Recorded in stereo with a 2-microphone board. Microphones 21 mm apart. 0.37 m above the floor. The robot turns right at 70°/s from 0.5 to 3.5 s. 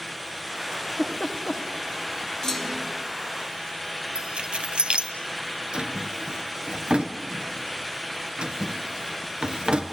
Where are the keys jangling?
60° right (ahead or behind), 1.9 m.